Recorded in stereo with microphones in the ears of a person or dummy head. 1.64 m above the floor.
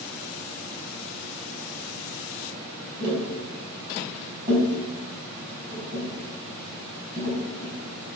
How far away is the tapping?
About 5.5 m.